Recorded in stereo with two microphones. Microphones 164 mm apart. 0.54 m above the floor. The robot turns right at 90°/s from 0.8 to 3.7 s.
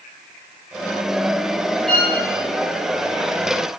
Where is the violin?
Centre (ahead or behind), 1.6 m; by 2.1 s 25° left (ahead or behind), 1.6 m.